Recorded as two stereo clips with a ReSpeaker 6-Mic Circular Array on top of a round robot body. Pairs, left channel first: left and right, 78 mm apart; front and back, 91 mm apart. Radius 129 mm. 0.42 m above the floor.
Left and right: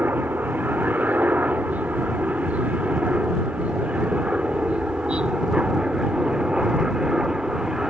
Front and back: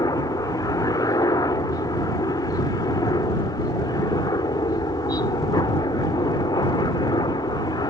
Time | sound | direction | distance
0.0 | a helicopter | 30° right | ?